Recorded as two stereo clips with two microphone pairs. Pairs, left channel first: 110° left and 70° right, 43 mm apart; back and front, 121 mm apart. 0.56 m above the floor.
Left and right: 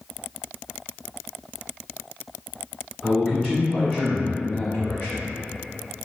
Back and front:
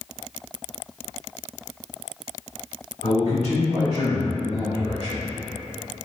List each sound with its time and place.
3.0 s a man speaking: 165° right, 1.4 m; by 5.2 s 135° left, 1.5 m